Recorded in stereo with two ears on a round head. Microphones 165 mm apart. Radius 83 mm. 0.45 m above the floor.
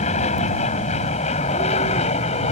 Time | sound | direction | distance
0.0 | an aircraft | 40° left (ahead or behind) | ?